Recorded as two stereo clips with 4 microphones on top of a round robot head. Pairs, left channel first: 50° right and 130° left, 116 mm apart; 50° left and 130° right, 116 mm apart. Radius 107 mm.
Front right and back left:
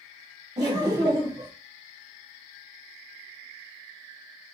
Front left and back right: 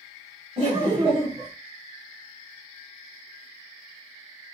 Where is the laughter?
175° right, 1.1 m.